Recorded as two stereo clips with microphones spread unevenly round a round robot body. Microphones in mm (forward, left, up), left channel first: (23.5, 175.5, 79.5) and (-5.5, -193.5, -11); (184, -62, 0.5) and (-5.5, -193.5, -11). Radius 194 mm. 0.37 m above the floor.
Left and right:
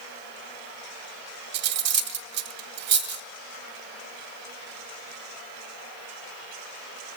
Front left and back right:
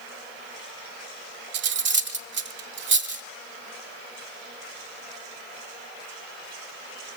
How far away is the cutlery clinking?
About 1.1 m.